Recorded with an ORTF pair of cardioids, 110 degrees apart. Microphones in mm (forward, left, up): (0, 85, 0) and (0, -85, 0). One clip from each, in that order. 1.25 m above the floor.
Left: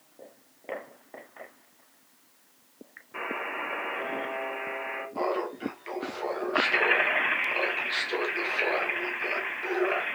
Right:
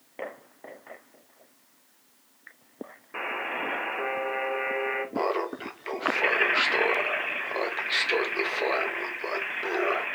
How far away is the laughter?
About 1.1 m.